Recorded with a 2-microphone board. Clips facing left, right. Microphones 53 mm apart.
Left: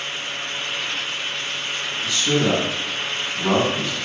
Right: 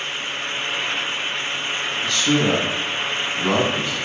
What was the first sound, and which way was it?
A man speaking, 5° left (ahead or behind).